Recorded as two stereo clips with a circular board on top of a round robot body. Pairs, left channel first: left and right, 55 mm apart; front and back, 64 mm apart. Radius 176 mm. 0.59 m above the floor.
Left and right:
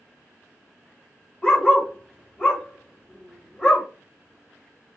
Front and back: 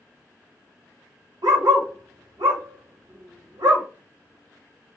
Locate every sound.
1.4 s a dog barking: 160° left, 1.2 m